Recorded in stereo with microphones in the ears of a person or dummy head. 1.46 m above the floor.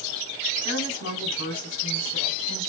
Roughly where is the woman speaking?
Left.